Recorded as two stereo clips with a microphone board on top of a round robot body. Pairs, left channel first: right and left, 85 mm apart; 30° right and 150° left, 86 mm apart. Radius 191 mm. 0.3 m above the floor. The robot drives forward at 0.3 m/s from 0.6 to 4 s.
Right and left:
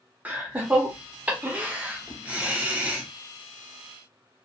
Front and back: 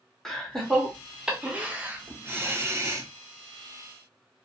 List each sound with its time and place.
0.2 s laughter: 55° left, 1.1 m; by 3.1 s 150° left, 1.2 m